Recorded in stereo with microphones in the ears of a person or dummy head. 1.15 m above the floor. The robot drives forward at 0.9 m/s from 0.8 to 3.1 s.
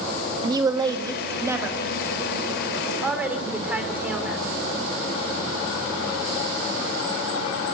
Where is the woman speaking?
20° right (ahead or behind), 1.7 m; by 4.4 s 10° right (ahead or behind), 3.5 m.